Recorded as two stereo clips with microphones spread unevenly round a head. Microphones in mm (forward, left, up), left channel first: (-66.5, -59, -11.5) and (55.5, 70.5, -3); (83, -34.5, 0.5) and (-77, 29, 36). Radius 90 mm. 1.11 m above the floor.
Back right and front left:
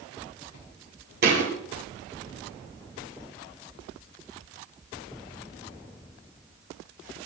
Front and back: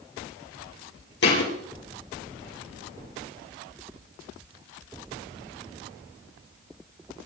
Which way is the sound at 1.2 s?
5° left.